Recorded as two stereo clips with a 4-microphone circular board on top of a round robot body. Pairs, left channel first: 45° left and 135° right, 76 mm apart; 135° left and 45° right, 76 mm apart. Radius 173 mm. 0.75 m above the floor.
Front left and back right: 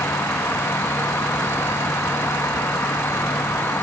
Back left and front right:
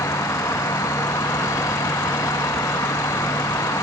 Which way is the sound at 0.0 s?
100° left.